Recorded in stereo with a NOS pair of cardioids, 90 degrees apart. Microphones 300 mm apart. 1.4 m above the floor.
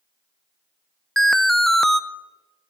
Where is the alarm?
Straight ahead, 0.6 m.